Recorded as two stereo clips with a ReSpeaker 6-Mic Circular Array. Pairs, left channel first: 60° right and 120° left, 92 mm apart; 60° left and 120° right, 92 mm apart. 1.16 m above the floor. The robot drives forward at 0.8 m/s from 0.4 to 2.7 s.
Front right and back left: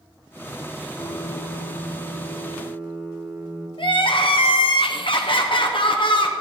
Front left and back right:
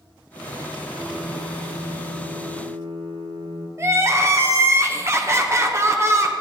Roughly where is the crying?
Ahead right.